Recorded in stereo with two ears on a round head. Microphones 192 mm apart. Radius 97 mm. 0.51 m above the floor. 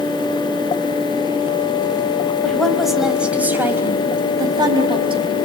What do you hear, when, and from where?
2.4 s a woman speaking: 5° left (ahead or behind), 3.5 m; by 5.3 s 25° right (ahead or behind), 4 m